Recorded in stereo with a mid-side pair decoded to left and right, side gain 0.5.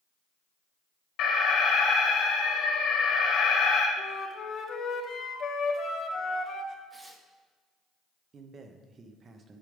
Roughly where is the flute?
Ahead left.